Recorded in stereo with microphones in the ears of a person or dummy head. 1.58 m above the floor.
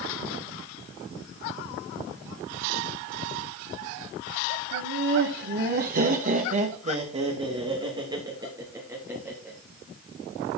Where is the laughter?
70° right (ahead or behind), 2.5 m; by 9.6 s 10° right (ahead or behind), 3 m.